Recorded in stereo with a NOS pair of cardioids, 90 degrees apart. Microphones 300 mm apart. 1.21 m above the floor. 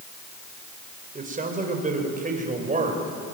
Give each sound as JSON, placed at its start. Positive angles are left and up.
{"t": 1.1, "sound": "a man speaking", "azimuth_deg": -30, "distance_m": 5.0}